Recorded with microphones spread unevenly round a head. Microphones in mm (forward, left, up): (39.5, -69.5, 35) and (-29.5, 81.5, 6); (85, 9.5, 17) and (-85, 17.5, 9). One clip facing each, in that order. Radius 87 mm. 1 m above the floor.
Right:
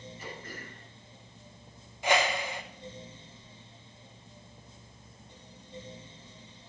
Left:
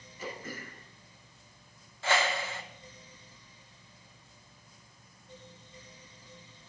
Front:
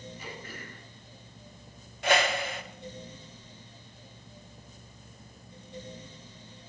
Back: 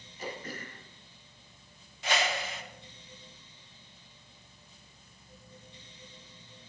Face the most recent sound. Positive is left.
turn(degrees=15)